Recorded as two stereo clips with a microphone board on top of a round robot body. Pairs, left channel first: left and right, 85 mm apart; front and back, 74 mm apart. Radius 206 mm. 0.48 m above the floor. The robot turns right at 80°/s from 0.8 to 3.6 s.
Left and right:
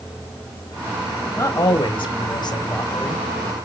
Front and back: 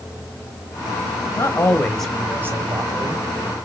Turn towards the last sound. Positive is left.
turn(degrees=-150)